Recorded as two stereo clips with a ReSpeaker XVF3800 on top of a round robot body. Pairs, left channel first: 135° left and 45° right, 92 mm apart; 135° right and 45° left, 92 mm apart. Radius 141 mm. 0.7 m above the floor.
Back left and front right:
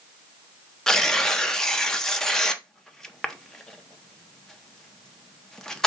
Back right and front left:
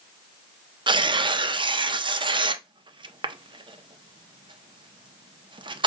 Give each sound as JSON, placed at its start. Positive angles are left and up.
{"t": 0.9, "sound": "tearing paper", "azimuth_deg": 50, "distance_m": 0.7}